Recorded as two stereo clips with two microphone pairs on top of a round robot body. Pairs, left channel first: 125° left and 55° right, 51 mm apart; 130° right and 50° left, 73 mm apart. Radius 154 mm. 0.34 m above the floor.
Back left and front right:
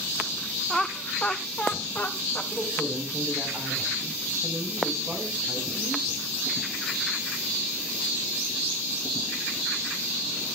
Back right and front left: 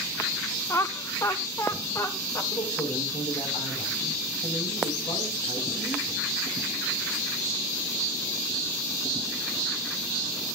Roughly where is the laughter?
Behind right.